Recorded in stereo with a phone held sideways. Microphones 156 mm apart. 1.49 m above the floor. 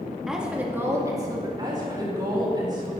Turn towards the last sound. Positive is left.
turn(degrees=-25)  # may be behind; listen again after turning